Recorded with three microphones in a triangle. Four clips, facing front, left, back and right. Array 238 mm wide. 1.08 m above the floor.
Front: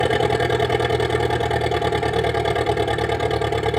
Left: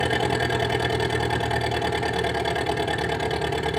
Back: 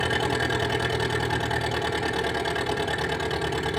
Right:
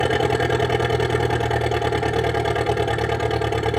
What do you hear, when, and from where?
0.0 s an engine running: 55° right, 1.9 m